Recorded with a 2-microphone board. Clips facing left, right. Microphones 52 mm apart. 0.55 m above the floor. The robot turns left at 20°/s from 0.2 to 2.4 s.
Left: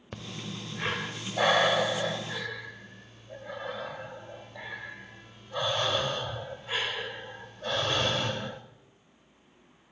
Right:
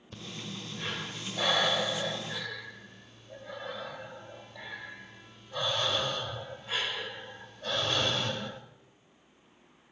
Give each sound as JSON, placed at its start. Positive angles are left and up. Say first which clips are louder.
{"t": 0.1, "sound": "breathing", "louder": "left 2 dB", "side_deg": 55, "distance_m": 1.5}